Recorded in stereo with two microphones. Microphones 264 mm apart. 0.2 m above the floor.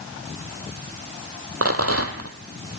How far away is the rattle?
About 1.7 m.